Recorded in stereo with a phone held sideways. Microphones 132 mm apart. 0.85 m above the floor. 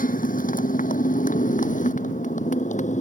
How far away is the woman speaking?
No woman speaking in this recording.